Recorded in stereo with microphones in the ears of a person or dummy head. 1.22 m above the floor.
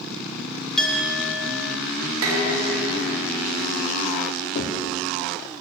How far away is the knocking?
About 1.6 m.